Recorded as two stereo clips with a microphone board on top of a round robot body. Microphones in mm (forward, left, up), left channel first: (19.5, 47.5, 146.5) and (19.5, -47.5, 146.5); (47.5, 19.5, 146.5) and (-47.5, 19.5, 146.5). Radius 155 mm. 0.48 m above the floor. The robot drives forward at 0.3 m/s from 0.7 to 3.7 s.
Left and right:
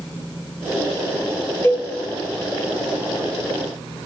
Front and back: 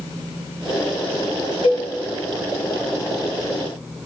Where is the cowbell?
15° left, 0.8 m; by 1.9 s 20° left, 0.8 m.